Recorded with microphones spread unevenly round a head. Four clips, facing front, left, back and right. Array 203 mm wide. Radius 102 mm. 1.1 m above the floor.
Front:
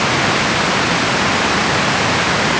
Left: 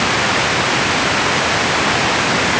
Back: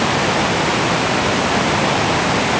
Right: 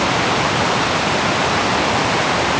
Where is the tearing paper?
I don't hear tearing paper.